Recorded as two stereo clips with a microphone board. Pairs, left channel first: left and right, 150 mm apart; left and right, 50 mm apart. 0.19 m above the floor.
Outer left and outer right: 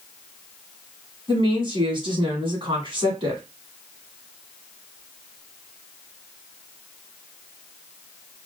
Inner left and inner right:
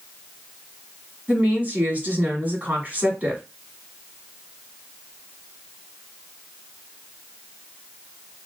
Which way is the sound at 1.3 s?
35° right (ahead or behind).